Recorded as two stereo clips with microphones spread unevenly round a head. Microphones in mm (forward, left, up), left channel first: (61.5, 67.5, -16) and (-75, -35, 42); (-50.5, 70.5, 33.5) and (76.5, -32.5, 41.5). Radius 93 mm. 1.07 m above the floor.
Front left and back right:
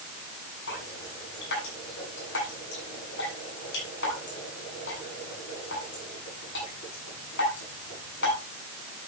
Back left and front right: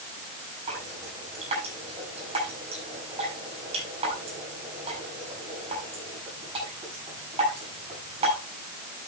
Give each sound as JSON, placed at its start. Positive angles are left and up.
{"t": 0.7, "sound": "dripping", "azimuth_deg": 15, "distance_m": 8.0}